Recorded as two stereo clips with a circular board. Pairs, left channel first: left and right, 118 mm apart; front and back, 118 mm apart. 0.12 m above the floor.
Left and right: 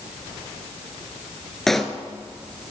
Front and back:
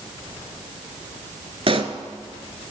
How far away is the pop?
About 0.7 m.